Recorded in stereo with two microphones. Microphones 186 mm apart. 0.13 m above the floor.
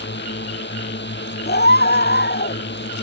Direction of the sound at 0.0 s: 70° left (ahead or behind).